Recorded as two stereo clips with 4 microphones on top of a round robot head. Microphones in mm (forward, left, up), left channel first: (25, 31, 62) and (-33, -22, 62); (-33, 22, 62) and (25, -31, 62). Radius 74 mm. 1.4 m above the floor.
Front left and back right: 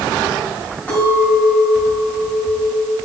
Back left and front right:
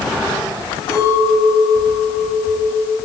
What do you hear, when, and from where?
0.9 s a clink: 110° left, 4 m